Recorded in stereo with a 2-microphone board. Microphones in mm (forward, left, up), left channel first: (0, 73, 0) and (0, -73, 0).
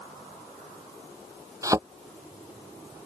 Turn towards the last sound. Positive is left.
turn(degrees=-25)  # may be behind; listen again after turning